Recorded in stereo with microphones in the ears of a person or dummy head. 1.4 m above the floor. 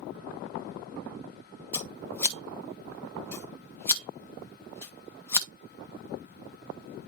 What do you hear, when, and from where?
1.7 s scissors: 10° left (ahead or behind), 1.2 m